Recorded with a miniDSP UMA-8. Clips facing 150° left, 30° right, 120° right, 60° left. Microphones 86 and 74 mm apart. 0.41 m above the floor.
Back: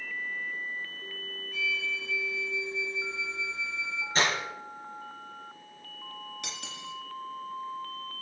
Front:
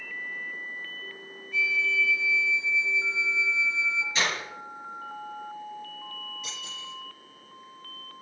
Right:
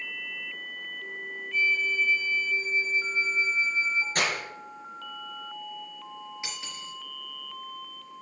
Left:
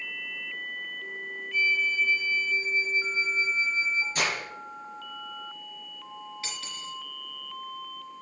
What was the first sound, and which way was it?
A flute, 140° left.